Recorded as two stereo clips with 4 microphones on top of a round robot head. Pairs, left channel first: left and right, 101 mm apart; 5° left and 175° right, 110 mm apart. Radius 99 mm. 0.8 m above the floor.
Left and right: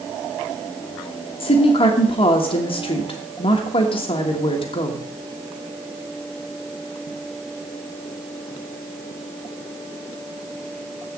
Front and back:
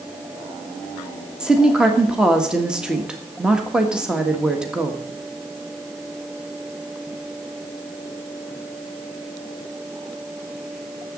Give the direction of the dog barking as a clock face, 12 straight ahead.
No dog barking in this recording.